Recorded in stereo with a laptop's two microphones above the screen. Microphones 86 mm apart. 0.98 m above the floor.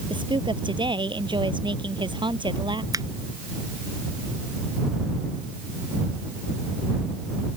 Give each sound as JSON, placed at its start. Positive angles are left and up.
{"t": 0.1, "sound": "a woman speaking", "side_deg": -65}
{"t": 2.9, "sound": "a finger snap", "side_deg": -45}